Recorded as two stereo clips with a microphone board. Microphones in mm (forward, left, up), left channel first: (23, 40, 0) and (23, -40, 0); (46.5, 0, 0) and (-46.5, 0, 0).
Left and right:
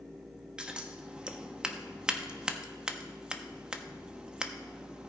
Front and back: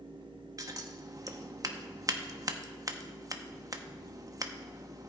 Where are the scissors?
160° right, 0.9 m.